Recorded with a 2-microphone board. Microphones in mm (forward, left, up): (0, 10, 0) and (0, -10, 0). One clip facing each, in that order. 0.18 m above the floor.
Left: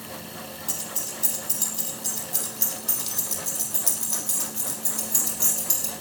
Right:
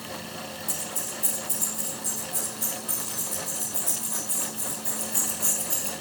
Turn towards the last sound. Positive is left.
turn(degrees=80)